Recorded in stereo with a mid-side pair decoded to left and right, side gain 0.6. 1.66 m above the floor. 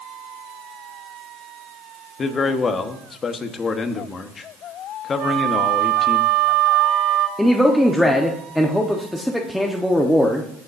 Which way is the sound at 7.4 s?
5° left.